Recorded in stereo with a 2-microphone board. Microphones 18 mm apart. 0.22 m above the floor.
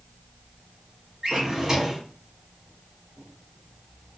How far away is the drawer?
About 0.9 m.